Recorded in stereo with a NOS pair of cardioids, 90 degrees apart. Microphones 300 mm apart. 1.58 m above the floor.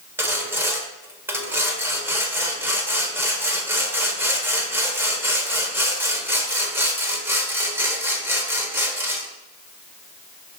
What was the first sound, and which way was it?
Sawing, 5° right.